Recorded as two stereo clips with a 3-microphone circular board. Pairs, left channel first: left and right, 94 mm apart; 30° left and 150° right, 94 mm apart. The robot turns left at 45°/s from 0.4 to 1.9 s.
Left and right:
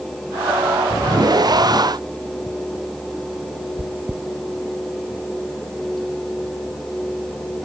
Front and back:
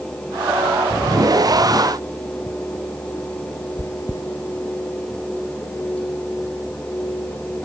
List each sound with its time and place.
3.8 s chewing: 20° right